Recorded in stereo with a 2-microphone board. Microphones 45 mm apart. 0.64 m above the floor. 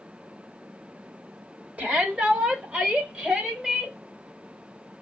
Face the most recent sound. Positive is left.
turn(degrees=-25)  # may be behind; listen again after turning